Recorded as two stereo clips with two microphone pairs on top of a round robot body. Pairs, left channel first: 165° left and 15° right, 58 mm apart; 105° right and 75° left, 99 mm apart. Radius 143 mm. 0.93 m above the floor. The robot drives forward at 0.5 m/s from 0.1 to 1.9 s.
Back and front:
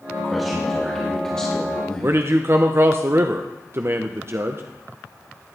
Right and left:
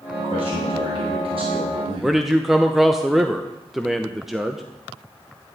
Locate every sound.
0.2 s a man speaking: 75° left, 2.5 m; by 2.2 s 90° left, 2.5 m
2.0 s a man speaking: 5° left, 0.9 m